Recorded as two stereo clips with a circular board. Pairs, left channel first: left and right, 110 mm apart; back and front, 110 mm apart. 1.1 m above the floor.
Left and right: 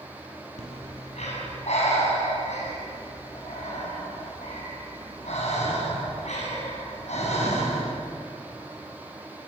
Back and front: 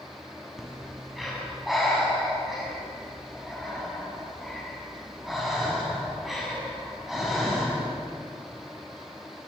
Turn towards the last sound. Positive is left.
turn(degrees=90)